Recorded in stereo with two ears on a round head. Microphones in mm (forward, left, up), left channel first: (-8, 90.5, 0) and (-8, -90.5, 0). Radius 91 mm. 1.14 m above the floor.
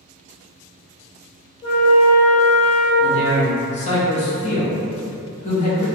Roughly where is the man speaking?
Left.